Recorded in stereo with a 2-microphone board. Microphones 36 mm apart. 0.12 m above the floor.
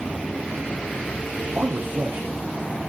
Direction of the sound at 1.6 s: 75° right (ahead or behind).